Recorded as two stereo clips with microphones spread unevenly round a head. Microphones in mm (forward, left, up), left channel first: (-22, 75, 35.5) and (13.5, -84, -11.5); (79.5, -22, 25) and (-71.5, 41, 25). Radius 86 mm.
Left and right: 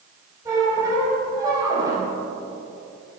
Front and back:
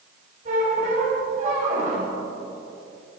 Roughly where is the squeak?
Behind right.